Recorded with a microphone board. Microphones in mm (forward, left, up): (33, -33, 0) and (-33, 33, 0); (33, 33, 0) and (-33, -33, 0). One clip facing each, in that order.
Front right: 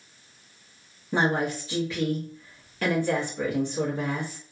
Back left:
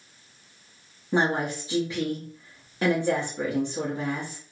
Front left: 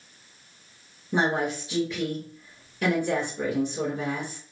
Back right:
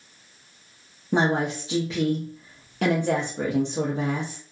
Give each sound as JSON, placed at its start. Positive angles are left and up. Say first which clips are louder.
{"t": 1.1, "sound": "a woman speaking", "louder": "even, back right 2 dB", "azimuth_deg": -155, "distance_m": 0.8}